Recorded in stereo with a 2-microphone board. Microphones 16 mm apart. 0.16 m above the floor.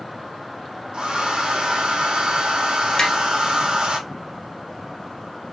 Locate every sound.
0.9 s a hair dryer: 80° right, 1.1 m
3.0 s tapping: 40° left (ahead or behind), 1.4 m